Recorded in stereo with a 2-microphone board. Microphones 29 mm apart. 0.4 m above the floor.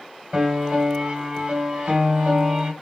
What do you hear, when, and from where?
0.3 s a piano: 35° right (ahead or behind), 1.1 m